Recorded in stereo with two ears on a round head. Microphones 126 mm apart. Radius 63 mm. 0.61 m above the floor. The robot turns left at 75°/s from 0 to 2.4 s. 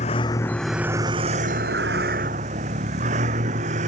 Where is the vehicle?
50° left (ahead or behind); by 3.9 s 55° right (ahead or behind).